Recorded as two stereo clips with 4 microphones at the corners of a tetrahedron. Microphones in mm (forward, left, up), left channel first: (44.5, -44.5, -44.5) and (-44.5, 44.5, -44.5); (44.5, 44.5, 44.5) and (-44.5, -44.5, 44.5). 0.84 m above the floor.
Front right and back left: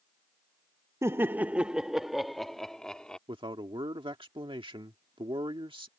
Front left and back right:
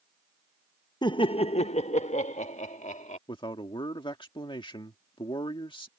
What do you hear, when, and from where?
1.0 s laughter: 80° left; by 3.2 s 40° left
3.3 s a man speaking: 90° left